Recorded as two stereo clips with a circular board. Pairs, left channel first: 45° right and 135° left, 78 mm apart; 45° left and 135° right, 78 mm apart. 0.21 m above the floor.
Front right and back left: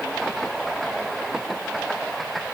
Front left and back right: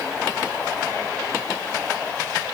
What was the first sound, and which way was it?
Only background noise.